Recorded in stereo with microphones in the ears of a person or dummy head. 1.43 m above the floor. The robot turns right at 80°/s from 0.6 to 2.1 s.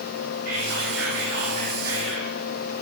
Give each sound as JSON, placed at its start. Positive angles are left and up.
{"t": 0.5, "sound": "whispering", "azimuth_deg": -120, "distance_m": 3.0}